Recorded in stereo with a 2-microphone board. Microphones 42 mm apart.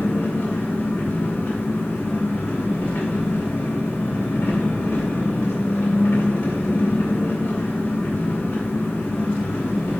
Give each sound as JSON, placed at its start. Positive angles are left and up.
{"t": 0.0, "sound": "an engine running", "side_deg": 65, "distance_m": 2.0}